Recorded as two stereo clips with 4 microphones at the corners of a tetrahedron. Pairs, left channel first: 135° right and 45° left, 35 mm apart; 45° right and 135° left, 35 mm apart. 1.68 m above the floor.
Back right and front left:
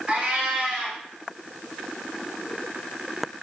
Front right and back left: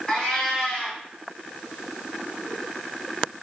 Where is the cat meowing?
Straight ahead, 1.1 m.